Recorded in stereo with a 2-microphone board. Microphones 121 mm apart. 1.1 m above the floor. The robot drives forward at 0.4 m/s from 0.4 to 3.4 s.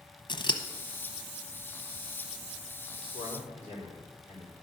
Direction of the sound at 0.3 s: 40° left (ahead or behind).